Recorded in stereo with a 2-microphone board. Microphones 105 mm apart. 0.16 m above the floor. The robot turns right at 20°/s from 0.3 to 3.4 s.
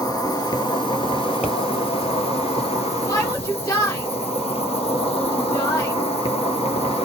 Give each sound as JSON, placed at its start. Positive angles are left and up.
{"t": 0.0, "sound": "an insect", "azimuth_deg": 40, "distance_m": 1.2}
{"t": 1.4, "sound": "a pop", "side_deg": -10, "distance_m": 3.0}
{"t": 3.1, "sound": "a shout", "side_deg": 35, "distance_m": 1.5}